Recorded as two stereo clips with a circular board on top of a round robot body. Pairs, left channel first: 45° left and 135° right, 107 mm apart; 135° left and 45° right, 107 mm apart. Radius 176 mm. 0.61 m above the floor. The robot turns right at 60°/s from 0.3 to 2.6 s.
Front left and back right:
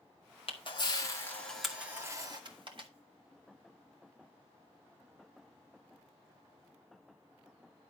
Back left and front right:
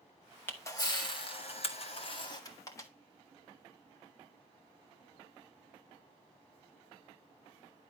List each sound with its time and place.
0.5 s a camera shutter: 65° left, 2.5 m; by 2.9 s 165° right, 2.5 m